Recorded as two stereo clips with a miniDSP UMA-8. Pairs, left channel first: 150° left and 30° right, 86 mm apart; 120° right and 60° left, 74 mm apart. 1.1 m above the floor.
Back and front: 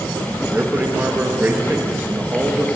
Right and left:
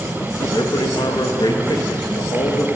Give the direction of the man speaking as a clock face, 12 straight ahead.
3 o'clock.